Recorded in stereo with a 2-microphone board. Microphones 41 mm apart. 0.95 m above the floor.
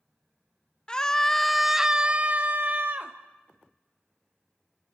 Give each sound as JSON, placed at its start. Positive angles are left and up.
{"t": 0.9, "sound": "a scream", "side_deg": 20, "distance_m": 0.8}